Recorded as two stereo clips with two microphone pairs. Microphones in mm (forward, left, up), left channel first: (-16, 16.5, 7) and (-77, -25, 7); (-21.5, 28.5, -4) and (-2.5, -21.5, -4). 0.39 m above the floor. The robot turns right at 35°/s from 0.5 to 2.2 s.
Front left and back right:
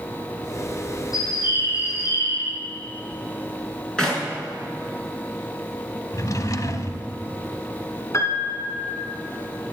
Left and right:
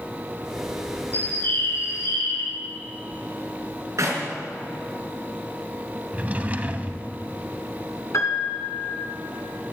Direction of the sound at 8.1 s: 85° left.